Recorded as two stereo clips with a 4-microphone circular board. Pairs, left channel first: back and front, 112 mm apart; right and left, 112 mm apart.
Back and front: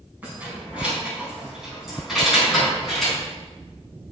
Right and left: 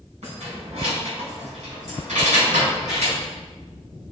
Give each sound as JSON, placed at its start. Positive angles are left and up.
{"t": 0.2, "sound": "keys jangling", "azimuth_deg": 75, "distance_m": 4.0}